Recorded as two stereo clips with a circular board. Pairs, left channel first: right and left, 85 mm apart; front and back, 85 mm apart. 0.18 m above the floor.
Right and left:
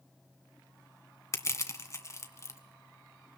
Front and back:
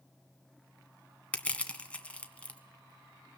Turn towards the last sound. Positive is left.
turn(degrees=-70)